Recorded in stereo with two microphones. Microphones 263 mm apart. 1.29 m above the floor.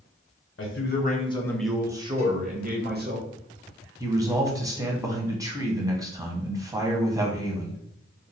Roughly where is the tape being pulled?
No tape being pulled in this recording.